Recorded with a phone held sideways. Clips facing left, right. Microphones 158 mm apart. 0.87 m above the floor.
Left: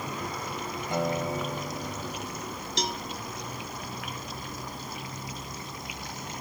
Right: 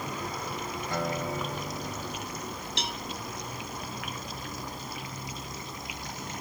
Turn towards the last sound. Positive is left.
turn(degrees=40)  # may be behind; listen again after turning